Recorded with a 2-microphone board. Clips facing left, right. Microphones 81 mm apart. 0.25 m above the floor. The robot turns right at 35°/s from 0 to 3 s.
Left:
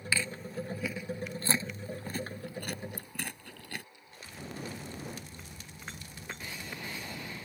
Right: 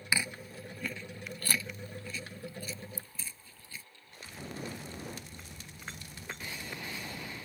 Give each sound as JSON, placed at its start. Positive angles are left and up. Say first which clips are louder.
{"t": 0.1, "sound": "chewing", "louder": "left 1 dB", "side_deg": -20}